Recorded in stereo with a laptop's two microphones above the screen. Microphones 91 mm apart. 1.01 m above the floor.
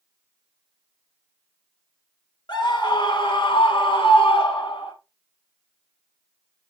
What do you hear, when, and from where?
2.5 s a scream: 55° left (ahead or behind), 2.5 m; by 4.9 s 75° left (ahead or behind), 2 m